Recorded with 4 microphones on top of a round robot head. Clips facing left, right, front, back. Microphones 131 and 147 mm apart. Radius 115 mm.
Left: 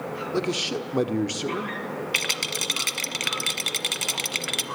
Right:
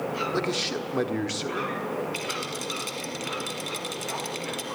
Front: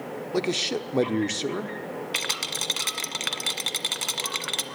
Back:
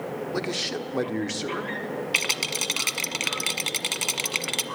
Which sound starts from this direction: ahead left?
A man speaking, at 0.3 s.